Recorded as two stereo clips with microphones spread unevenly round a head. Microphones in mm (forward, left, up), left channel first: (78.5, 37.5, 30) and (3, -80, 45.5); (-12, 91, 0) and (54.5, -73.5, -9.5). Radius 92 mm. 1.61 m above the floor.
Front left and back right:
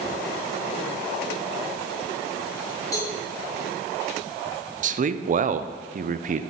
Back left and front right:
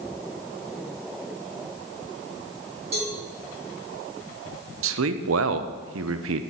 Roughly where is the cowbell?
Ahead.